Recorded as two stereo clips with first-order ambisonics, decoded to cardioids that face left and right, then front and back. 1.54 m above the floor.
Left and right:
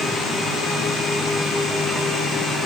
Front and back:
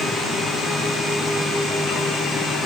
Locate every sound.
Only background noise.